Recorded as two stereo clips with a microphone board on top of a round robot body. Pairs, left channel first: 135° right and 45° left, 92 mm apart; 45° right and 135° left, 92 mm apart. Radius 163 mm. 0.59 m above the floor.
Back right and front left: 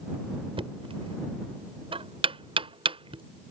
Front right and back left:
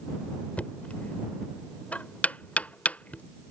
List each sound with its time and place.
0.6 s knocking: 30° left